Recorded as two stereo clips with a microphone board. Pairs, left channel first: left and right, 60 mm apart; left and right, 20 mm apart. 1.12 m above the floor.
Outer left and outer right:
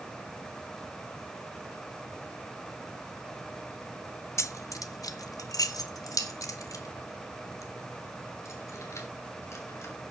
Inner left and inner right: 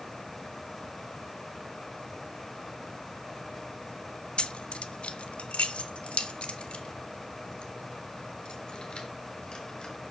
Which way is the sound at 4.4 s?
55° left (ahead or behind).